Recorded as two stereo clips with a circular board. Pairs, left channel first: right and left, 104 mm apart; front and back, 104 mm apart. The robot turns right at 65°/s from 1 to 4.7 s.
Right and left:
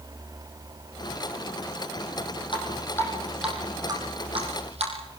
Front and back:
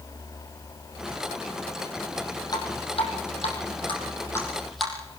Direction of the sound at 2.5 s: 55° right.